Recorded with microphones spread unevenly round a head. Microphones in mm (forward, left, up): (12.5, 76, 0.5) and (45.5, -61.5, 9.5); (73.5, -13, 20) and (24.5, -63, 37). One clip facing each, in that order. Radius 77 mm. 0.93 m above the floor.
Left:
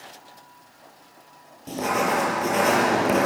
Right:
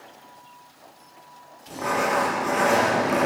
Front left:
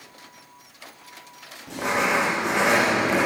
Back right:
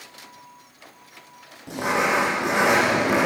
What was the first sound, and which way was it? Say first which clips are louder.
Writing: left 1 dB, back right 1 dB; 155° left.